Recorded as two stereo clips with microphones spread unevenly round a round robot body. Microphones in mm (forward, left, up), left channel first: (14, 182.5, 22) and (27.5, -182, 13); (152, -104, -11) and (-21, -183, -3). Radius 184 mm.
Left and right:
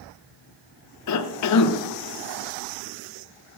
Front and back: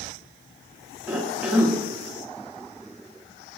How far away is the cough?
About 0.5 m.